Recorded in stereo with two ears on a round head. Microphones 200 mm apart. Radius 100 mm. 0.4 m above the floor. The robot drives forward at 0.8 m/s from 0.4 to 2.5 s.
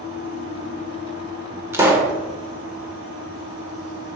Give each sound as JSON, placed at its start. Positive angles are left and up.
{"t": 1.7, "sound": "a pop", "side_deg": -10, "distance_m": 1.4}